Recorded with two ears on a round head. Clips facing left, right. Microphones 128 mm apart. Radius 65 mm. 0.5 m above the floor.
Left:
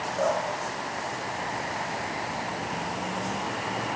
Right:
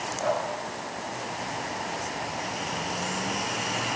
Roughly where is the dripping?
Left.